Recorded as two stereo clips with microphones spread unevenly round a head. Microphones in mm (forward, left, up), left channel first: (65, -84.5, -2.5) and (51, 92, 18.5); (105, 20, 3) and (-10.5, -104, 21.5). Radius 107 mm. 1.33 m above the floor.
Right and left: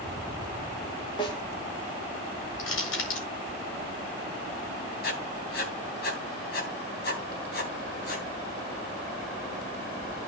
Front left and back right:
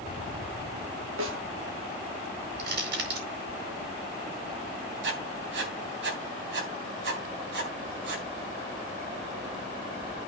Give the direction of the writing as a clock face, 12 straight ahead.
5 o'clock.